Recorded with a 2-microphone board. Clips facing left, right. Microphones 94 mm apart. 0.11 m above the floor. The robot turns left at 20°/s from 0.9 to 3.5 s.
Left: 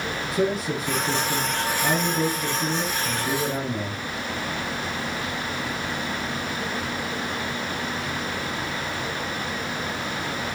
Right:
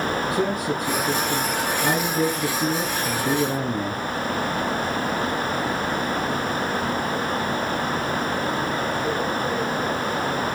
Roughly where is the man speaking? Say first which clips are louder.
Right 1 dB; ahead right.